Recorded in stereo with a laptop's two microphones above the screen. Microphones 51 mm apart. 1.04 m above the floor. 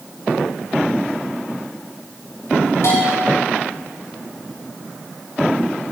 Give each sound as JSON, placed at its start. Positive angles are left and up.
{"t": 2.8, "sound": "a bell", "side_deg": 80, "distance_m": 5.5}